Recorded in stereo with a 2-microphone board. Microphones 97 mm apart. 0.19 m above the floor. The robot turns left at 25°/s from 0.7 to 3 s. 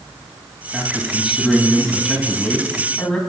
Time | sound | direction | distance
0.7 | a man speaking | 10° right (ahead or behind) | 1.5 m